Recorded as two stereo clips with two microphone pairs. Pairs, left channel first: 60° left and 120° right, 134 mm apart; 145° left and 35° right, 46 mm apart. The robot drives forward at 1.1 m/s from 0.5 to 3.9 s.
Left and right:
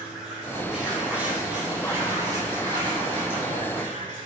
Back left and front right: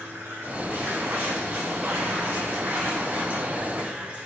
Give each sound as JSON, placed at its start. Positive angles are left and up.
{"t": 0.0, "sound": "running water", "azimuth_deg": -35, "distance_m": 4.5}